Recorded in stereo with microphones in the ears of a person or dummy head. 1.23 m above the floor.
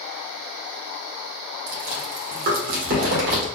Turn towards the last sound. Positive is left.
turn(degrees=-60)  # may be behind; listen again after turning